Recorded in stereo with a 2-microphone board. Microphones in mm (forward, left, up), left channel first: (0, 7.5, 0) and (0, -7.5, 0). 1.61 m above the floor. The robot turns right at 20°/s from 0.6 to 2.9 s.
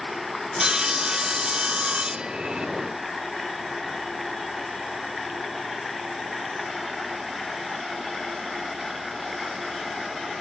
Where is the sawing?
120° right; by 2.7 s 80° right.